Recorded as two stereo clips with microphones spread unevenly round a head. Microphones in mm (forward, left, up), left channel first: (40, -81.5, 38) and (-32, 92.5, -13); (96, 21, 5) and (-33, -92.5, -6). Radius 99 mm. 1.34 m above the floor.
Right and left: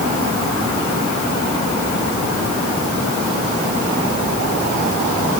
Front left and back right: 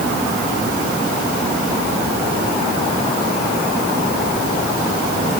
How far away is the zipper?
No zipper in this recording.